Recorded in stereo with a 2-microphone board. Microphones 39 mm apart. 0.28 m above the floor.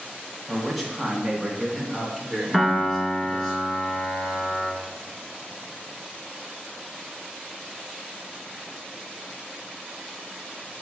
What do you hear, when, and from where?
0.5 s a man speaking: centre (ahead or behind), 1.9 m; by 3.5 s 10° left (ahead or behind), 3.5 m
2.5 s a piano: centre (ahead or behind), 1.3 m